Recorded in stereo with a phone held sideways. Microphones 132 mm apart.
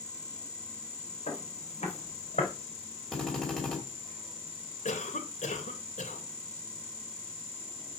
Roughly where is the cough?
Left.